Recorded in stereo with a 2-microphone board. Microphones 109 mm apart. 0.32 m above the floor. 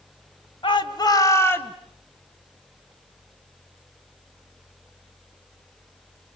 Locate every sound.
0.6 s a shout: 50° left (ahead or behind), 1.9 m; by 1.8 s 15° left (ahead or behind), 2 m